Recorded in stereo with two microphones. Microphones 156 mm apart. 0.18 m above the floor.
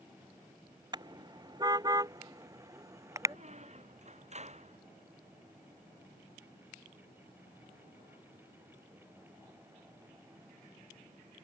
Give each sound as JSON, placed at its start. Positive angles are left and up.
{"t": 0.9, "sound": "a car horn", "side_deg": -25}
{"t": 3.3, "sound": "a squeak", "side_deg": -45}